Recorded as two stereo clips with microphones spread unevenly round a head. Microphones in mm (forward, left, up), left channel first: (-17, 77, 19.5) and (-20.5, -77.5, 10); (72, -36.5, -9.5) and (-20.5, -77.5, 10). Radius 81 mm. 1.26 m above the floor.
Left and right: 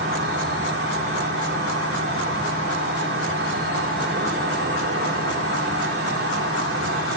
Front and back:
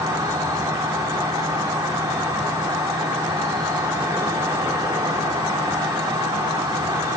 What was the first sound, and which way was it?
An insect, 100° right.